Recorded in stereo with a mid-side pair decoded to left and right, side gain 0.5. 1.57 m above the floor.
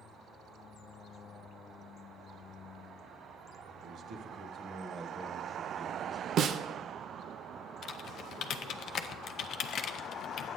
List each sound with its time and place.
3.8 s a man speaking: 65° right, 1.5 m; by 6.3 s 10° right, 1.3 m
6.4 s a snare drum: 60° right, 0.5 m
7.8 s typing on a keyboard: 60° left, 0.6 m